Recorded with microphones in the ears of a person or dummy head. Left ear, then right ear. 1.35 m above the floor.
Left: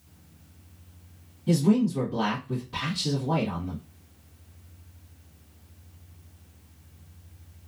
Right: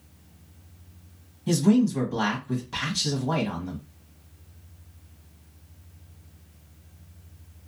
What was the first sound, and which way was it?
A man speaking, 60° right (ahead or behind).